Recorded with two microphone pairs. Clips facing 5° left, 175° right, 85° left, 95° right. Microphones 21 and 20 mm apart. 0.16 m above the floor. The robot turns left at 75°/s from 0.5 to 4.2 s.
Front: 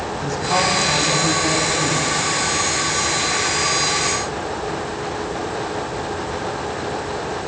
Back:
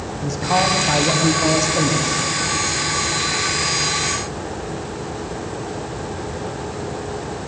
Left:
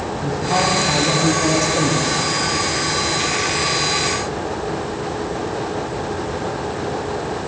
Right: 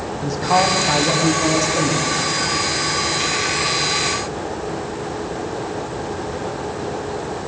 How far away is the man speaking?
About 7.5 m.